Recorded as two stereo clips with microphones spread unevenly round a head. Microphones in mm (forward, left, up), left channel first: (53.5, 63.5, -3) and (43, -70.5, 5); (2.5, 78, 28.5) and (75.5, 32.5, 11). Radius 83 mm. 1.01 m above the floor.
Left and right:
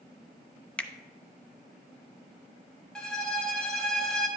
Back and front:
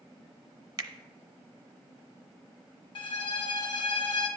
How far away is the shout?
No shout in this recording.